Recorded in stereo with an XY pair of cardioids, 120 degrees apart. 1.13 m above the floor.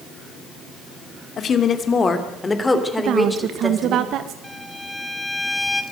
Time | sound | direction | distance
1.4 | a woman speaking | 45° left | 2.5 m
3.0 | a woman speaking | 70° right | 1.3 m
4.4 | a violin | 5° left | 1.5 m